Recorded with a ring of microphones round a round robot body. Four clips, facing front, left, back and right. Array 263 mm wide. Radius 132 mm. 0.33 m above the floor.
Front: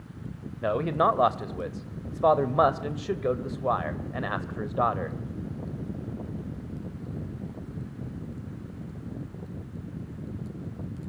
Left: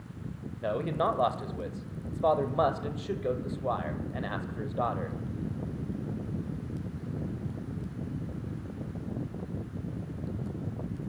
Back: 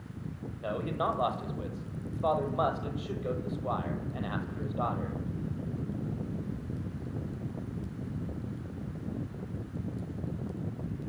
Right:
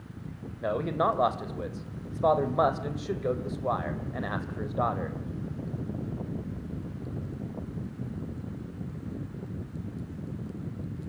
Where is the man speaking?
10° right, 1.7 m.